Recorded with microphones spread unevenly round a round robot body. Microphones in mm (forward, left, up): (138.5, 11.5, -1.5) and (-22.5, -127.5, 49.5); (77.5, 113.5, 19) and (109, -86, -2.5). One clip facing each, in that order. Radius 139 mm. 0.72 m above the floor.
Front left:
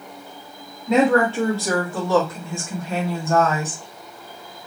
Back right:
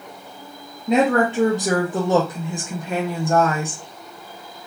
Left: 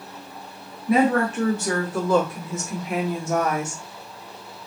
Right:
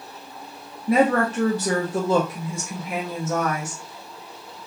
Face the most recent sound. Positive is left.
turn(degrees=125)